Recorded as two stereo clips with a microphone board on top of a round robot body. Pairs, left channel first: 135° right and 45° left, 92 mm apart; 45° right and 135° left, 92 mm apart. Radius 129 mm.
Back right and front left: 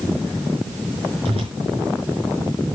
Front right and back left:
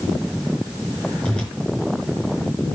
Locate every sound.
1.2 s a whoosh: 30° left, 5 m